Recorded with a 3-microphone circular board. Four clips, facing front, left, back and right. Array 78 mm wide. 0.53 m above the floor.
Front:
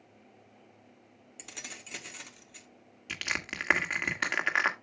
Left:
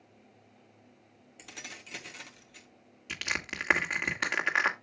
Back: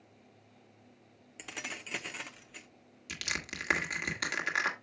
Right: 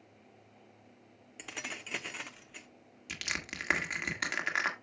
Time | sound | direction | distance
1.4 | keys jangling | 125° right | 0.8 m
3.1 | crushing | 25° left | 1.4 m